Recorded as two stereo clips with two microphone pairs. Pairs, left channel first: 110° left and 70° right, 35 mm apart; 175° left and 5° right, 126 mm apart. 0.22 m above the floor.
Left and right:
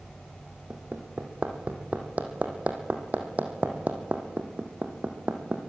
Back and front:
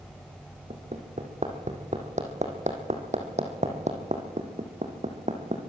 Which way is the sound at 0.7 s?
30° right.